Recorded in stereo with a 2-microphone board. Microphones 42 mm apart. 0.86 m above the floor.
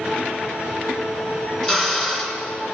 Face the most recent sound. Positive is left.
turn(degrees=20)  # may be behind; listen again after turning